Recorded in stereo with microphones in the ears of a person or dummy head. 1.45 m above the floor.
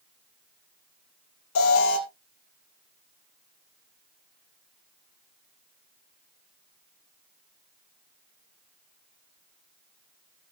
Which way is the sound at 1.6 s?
65° left (ahead or behind).